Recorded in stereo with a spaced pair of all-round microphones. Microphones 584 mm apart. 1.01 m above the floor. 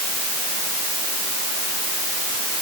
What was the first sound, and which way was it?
Only background noise.